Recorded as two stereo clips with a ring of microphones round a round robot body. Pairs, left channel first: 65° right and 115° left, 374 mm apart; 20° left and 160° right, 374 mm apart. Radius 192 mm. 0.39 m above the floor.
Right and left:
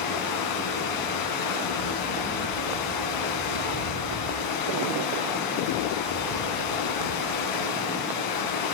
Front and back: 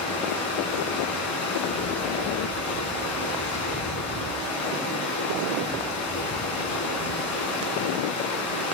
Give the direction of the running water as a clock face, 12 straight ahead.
1 o'clock.